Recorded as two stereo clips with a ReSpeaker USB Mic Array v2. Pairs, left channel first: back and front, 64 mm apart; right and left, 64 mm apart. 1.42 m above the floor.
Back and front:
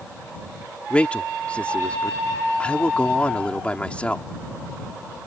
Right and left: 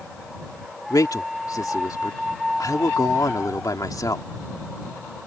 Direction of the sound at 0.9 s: 110° right.